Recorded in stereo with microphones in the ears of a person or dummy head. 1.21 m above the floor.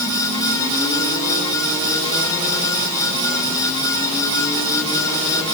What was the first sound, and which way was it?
Only background noise.